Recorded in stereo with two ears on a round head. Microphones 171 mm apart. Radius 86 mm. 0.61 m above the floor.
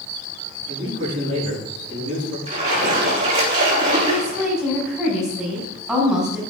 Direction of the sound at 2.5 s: 30° right (ahead or behind).